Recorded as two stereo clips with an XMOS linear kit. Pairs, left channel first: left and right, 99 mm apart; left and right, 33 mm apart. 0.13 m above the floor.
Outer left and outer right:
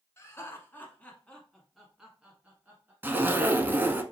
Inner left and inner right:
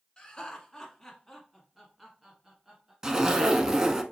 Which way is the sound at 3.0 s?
20° right (ahead or behind).